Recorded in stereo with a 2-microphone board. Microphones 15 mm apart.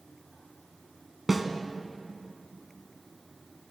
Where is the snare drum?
10° right (ahead or behind), 0.9 m.